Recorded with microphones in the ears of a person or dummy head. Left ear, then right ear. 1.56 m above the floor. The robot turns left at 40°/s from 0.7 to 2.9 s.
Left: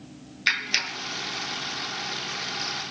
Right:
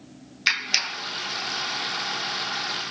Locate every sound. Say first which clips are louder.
0.5 s a clap: right 1 dB; 15° right (ahead or behind); by 1.0 s 25° right (ahead or behind)